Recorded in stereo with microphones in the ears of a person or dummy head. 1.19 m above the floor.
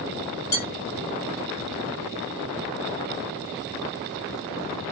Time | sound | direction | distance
0.5 | dishes clattering | 15° left (ahead or behind) | 1.6 m